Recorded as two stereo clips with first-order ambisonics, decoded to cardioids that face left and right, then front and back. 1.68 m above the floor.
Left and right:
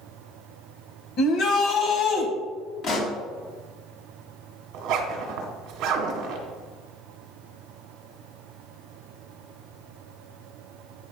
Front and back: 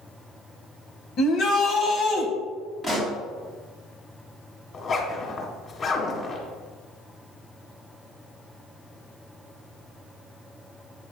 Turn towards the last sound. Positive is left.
turn(degrees=-60)